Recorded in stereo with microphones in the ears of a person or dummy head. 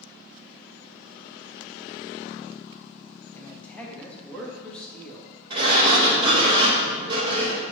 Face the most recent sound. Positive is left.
turn(degrees=-25)  # may be behind; listen again after turning